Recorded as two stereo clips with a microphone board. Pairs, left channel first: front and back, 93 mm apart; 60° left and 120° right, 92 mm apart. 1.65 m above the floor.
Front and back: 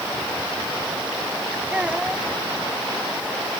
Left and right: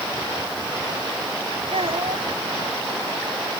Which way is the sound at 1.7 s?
100° right.